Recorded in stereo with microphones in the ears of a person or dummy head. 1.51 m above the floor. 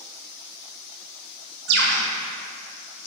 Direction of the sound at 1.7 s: 65° right (ahead or behind).